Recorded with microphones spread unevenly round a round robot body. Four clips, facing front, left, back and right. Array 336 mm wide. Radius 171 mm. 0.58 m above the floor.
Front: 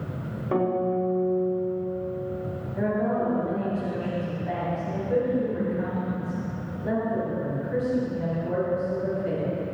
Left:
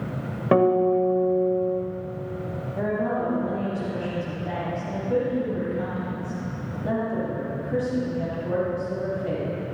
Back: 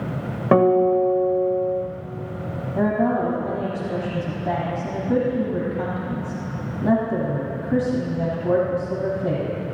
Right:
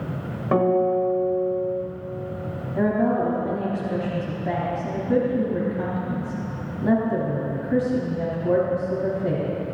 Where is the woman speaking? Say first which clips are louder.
Right 5 dB, back 5 dB; 150° right, 3.5 m.